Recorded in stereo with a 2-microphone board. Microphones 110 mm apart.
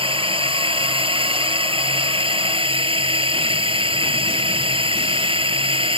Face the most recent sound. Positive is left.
turn(degrees=-55)  # may be behind; listen again after turning